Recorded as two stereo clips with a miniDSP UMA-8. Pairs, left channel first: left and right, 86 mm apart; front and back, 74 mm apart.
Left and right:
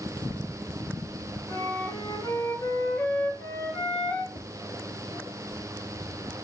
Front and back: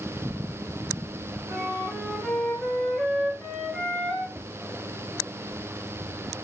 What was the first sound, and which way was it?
A flute, 80° left.